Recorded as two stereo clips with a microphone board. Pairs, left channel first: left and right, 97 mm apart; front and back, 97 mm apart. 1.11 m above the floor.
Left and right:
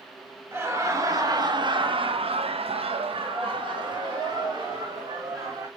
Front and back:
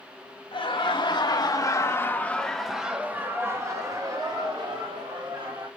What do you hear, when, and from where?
0.5 s laughter: 25° right, 1.2 m; by 5.7 s 145° right, 2.0 m